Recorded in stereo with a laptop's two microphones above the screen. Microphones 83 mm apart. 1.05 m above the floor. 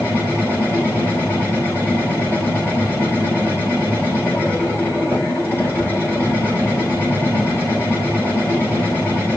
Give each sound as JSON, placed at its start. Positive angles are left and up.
{"t": 0.0, "sound": "a machine running", "side_deg": 25, "distance_m": 4.5}